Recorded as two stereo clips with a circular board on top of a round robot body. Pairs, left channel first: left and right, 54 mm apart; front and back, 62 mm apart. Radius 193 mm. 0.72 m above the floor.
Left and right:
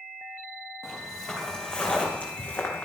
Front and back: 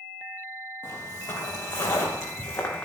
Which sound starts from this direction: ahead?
Footsteps, at 0.8 s.